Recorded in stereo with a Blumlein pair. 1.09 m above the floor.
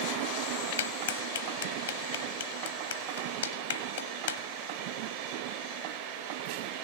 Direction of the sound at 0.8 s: 65° left.